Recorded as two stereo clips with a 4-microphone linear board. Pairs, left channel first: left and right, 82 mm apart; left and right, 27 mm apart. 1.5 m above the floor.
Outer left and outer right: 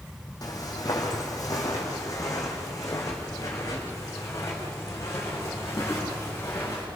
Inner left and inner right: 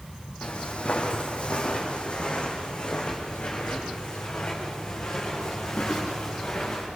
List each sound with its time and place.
0.4 s footsteps: 50° left (ahead or behind), 4 m; by 6.8 s 35° left (ahead or behind), 8 m